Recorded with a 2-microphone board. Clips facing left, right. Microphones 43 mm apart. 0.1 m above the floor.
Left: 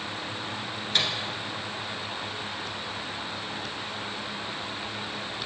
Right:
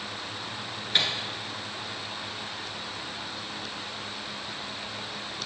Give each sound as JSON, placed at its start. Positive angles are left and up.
{"t": 0.9, "sound": "a microwave", "side_deg": -15, "distance_m": 1.2}